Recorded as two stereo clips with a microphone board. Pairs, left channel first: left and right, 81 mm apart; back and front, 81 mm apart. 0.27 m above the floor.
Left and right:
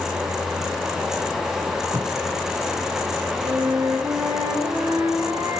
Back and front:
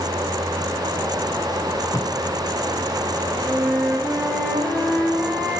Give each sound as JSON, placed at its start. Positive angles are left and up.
{"t": 1.9, "sound": "tape being pulled", "azimuth_deg": -135, "distance_m": 0.9}
{"t": 3.4, "sound": "a flute", "azimuth_deg": -95, "distance_m": 3.0}